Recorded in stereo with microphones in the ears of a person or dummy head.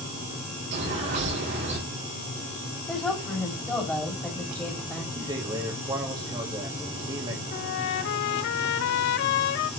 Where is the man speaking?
25° right (ahead or behind), 2.5 m.